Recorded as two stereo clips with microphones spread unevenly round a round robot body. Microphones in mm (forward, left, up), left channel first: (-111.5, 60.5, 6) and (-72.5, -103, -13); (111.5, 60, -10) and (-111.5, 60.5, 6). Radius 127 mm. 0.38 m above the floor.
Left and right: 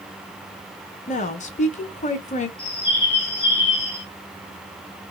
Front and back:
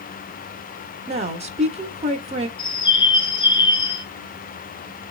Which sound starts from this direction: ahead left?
A bird, at 2.6 s.